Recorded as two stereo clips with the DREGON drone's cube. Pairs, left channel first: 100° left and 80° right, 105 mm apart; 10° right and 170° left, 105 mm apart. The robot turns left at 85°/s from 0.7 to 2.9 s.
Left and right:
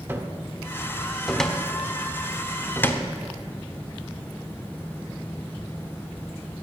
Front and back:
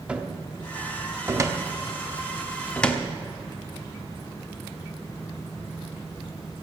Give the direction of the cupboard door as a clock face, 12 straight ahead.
4 o'clock.